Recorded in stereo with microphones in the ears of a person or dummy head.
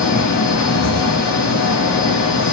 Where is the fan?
70° left (ahead or behind), 0.8 m.